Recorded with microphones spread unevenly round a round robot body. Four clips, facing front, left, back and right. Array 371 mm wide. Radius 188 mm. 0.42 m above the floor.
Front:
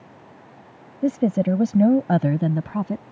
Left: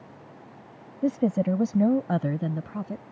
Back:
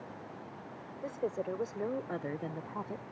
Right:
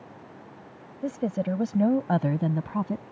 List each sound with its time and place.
1.0 s a woman speaking: 15° left; by 3.0 s 30° right